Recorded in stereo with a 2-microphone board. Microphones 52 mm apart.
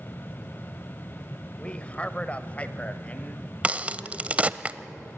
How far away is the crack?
About 0.7 m.